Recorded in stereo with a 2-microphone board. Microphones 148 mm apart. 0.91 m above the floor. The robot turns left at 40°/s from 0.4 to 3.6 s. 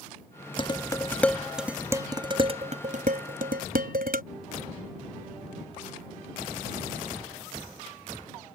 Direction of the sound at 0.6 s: 35° left (ahead or behind).